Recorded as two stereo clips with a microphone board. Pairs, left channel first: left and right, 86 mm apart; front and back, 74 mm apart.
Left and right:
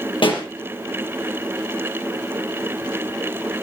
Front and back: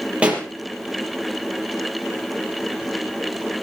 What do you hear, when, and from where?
0.2 s a pop: 105° left, 5 m